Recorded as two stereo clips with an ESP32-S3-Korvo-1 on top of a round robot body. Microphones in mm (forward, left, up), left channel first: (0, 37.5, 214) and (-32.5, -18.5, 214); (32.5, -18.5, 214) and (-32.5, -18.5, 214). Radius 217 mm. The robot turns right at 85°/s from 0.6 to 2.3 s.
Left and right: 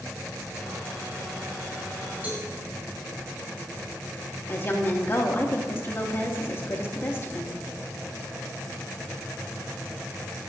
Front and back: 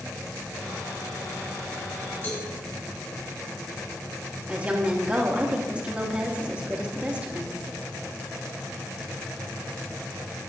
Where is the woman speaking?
110° left, 1.7 m.